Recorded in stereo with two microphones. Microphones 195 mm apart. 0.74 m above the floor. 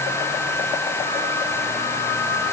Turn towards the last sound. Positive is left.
No sound to turn to.